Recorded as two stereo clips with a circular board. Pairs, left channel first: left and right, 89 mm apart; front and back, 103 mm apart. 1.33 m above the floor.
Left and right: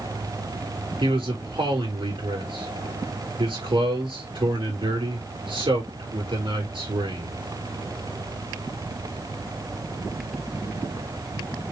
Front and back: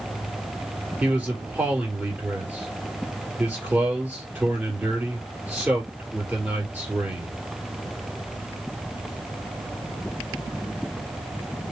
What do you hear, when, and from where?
1.0 s a man speaking: 100° right, 3 m